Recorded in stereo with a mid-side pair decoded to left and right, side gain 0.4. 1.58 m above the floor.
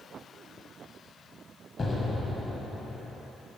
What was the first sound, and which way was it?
An explosion, 40° left.